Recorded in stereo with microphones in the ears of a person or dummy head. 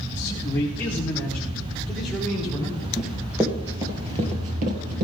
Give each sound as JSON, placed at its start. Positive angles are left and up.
{"t": 0.1, "sound": "a man speaking", "side_deg": 25, "distance_m": 1.9}
{"t": 3.0, "sound": "running footsteps", "side_deg": 0, "distance_m": 2.0}